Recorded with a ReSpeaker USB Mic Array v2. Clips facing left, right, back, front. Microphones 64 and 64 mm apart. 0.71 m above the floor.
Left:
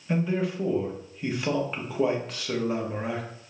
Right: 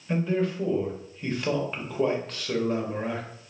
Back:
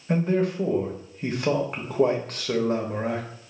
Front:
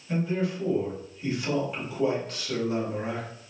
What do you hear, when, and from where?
0.1 s a man speaking: 170° left, 0.9 m